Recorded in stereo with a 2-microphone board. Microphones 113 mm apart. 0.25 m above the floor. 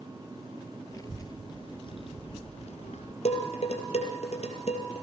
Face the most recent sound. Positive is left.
turn(degrees=65)  # may be behind; listen again after turning